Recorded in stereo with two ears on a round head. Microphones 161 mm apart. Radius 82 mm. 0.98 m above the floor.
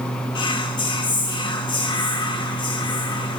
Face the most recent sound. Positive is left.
turn(degrees=30)  # may be behind; listen again after turning